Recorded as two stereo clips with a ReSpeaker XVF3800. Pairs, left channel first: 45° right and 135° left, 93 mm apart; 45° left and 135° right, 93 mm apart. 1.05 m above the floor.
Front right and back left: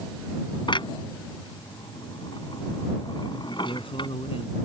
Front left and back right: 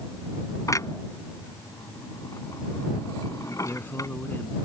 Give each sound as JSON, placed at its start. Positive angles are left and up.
{"t": 0.7, "sound": "a clunk", "azimuth_deg": -10}
{"t": 3.6, "sound": "a man speaking", "azimuth_deg": -25}